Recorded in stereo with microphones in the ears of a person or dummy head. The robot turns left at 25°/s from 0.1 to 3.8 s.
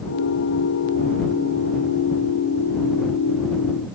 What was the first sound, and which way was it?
Only background noise.